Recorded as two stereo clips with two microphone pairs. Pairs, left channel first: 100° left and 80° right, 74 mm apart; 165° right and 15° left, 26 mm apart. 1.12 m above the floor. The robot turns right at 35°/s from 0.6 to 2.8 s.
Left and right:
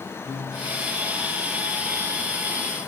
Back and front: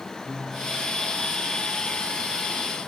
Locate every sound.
0.2 s a piano: 140° left, 7 m; by 0.9 s 150° left, 7 m